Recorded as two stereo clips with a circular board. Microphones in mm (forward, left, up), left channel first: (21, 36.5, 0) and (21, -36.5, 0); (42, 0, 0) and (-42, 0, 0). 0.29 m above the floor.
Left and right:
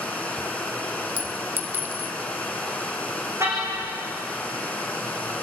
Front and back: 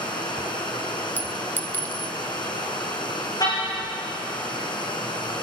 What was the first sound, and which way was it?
Running water, 20° left.